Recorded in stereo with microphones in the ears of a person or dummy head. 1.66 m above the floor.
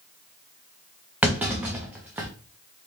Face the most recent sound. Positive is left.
turn(degrees=-10)  # may be behind; listen again after turning